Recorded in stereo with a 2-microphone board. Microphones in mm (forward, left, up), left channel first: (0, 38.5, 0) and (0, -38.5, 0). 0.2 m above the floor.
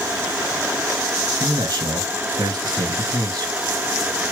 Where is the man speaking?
60° right (ahead or behind), 2.5 m.